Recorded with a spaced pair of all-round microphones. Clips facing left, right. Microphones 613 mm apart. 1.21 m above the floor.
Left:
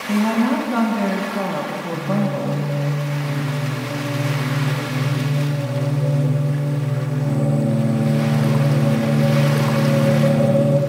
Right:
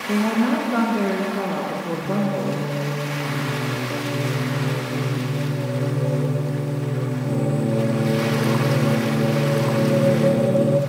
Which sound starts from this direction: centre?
Singing, at 1.9 s.